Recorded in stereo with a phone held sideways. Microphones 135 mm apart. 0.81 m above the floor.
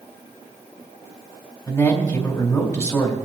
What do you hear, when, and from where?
1.7 s a man speaking: 25° left (ahead or behind), 3.5 m